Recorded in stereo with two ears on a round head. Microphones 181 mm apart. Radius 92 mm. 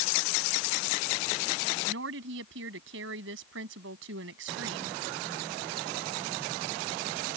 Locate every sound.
1.9 s a woman speaking: 75° right (ahead or behind)